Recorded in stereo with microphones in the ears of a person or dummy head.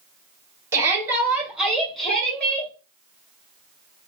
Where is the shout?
20° right (ahead or behind), 1.9 m; by 2.7 s 10° left (ahead or behind), 2.5 m.